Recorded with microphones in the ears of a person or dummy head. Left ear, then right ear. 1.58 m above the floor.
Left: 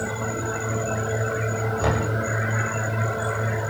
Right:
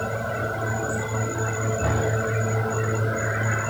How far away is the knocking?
About 7.5 m.